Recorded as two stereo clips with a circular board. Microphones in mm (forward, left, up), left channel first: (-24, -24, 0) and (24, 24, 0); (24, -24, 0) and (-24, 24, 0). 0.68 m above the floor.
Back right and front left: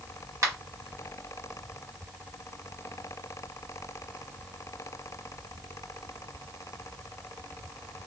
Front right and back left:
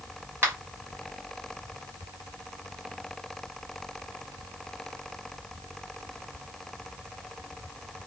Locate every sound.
0.4 s a finger snap: 80° left, 1.4 m